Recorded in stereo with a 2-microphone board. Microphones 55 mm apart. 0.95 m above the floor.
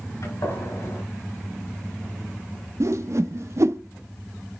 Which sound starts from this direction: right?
A whoosh, at 2.8 s.